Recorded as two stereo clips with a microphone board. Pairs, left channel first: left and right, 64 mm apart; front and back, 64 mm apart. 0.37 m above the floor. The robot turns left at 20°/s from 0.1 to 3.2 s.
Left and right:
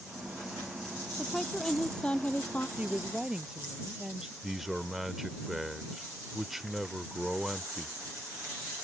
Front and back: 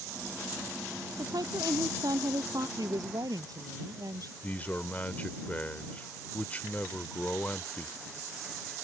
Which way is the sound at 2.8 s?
160° right.